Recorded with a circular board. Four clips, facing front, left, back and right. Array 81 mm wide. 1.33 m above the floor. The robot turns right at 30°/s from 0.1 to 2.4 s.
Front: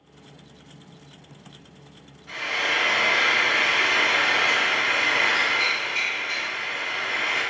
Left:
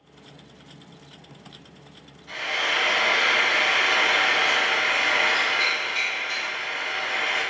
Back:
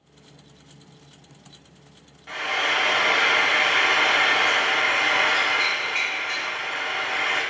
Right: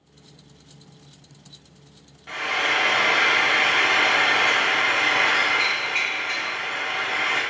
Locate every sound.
2.3 s frying: 125° right, 0.8 m; by 7.4 s 120° right, 0.8 m